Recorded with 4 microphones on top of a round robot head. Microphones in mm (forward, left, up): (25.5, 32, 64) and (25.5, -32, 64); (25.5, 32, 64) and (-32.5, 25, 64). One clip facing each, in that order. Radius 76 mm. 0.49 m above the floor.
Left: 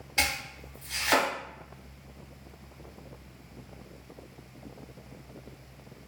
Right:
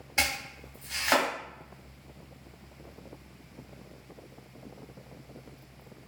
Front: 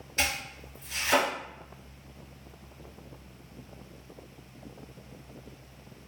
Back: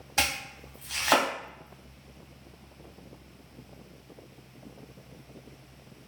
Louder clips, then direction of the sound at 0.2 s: Even, back 1 dB; 165° right.